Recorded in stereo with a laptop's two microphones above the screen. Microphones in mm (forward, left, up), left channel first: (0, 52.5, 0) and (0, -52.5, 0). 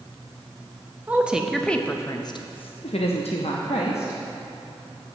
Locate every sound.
1.1 s a woman speaking: 15° right (ahead or behind), 0.7 m; by 4.2 s 75° left (ahead or behind), 1.2 m